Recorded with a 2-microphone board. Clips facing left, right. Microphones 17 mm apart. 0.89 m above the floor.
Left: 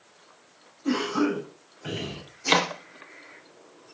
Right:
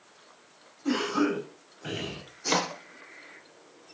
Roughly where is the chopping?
Left.